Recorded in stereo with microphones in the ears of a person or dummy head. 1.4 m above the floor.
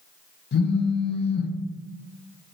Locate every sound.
0.5 s a phone buzzing: 60° left (ahead or behind), 0.7 m